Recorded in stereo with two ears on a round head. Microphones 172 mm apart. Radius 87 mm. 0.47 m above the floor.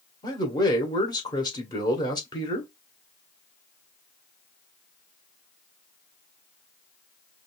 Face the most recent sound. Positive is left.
turn(degrees=20)  # may be behind; listen again after turning